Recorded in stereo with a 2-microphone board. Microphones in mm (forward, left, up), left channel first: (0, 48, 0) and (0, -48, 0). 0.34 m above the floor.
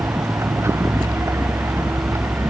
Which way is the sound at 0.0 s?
30° right (ahead or behind).